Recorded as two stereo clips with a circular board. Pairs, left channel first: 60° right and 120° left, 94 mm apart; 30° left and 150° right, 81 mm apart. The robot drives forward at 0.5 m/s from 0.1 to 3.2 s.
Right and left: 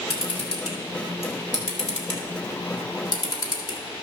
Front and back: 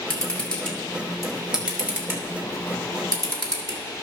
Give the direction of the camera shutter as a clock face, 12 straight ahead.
2 o'clock.